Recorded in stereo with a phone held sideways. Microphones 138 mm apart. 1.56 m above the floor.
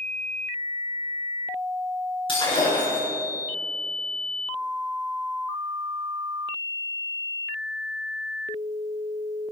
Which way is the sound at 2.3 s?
40° left (ahead or behind).